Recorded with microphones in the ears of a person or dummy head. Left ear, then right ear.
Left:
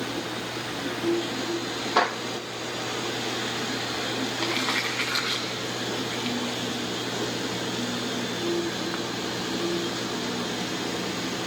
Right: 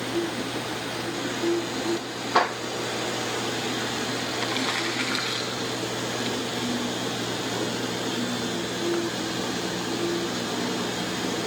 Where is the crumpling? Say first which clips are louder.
Left 1 dB; centre (ahead or behind), 0.9 m.